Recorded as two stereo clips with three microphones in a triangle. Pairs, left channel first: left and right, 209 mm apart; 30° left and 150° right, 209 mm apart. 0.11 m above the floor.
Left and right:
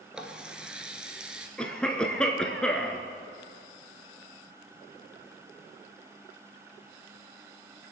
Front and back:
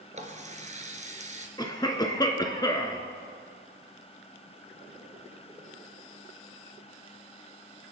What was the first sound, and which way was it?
A running tap, 175° right.